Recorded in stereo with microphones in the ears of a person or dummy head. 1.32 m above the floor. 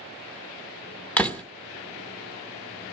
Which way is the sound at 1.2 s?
10° left (ahead or behind).